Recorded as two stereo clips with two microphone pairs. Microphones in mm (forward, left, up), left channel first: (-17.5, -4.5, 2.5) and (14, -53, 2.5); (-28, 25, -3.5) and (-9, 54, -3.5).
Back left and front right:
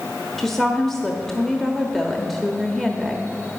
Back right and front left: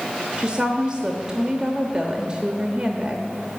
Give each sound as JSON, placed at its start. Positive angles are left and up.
{"t": 0.4, "sound": "a woman speaking", "azimuth_deg": 40, "distance_m": 1.0}